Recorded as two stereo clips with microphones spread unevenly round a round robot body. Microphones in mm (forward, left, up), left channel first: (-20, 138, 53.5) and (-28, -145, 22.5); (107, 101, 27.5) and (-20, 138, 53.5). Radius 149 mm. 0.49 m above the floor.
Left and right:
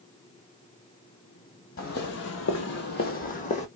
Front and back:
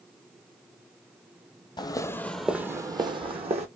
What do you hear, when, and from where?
1.8 s footsteps: 40° left, 0.7 m; by 3.7 s 150° left, 1.0 m